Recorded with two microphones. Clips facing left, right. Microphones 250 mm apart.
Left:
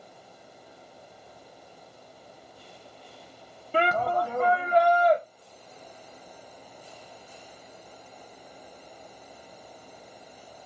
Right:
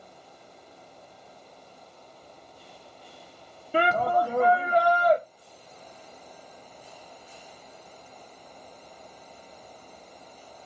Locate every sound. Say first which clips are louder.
3.7 s a shout: right 2 dB; 10° right (ahead or behind), 0.8 m